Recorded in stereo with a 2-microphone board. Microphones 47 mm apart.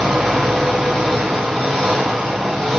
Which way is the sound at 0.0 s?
5° left (ahead or behind).